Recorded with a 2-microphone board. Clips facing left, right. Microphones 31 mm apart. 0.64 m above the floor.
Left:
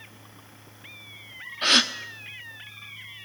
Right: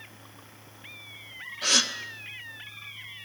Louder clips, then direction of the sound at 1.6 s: Left 4 dB; 40° left (ahead or behind).